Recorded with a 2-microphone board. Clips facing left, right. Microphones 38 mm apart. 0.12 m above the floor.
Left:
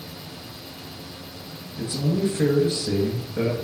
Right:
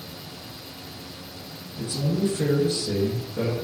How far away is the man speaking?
About 1.5 m.